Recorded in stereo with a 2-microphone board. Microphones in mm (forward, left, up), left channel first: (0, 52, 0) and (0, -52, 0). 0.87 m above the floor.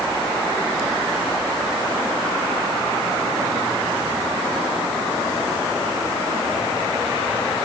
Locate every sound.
Only background noise.